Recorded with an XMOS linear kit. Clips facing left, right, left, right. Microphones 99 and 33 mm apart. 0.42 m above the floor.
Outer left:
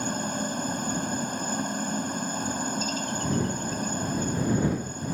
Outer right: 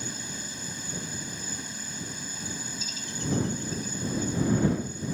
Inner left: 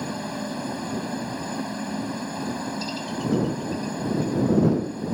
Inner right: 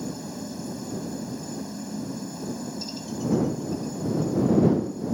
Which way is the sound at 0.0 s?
55° left (ahead or behind).